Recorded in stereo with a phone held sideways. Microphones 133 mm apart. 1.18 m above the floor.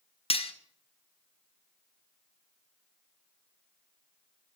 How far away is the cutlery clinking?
About 0.8 m.